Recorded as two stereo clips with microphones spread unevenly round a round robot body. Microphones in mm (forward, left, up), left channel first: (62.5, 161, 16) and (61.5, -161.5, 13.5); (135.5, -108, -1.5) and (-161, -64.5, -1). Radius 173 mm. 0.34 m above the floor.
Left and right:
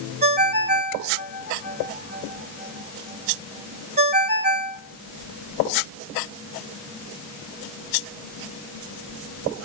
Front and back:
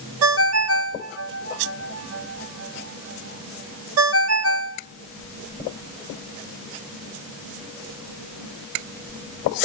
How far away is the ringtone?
About 0.7 m.